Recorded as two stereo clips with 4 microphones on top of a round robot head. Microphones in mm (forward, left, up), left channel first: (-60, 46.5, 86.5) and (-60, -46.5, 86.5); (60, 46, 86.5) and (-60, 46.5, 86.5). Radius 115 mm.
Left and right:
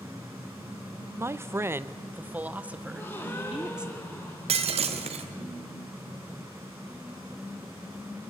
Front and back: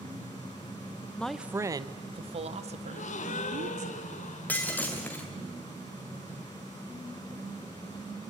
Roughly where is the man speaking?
Right.